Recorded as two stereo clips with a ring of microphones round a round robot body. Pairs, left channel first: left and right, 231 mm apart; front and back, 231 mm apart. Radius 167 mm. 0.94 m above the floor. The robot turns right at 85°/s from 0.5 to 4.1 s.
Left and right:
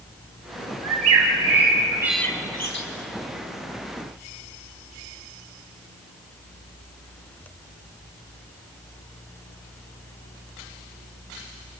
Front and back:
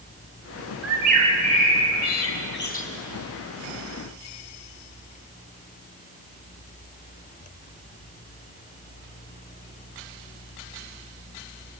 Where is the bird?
110° right, 3.5 m; by 2.9 s 60° left, 3.5 m.